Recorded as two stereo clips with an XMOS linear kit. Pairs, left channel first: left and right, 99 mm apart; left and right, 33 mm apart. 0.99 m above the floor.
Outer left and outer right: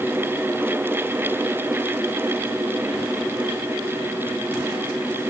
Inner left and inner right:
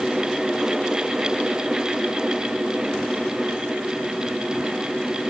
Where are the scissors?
No scissors in this recording.